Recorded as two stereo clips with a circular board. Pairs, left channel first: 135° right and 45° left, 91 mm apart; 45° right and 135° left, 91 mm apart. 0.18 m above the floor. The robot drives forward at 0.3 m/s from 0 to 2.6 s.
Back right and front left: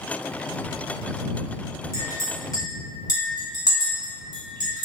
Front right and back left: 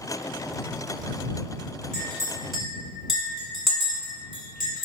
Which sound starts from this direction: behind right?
A clink, at 1.9 s.